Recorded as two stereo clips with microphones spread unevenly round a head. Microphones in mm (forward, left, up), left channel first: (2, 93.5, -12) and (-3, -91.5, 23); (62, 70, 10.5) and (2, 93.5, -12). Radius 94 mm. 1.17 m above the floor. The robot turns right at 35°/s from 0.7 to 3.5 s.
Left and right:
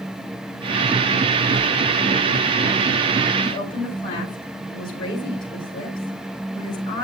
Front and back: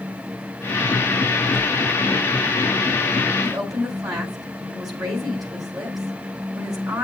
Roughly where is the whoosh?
Ahead left.